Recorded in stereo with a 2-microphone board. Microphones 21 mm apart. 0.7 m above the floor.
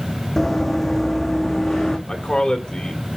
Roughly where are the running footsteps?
Centre.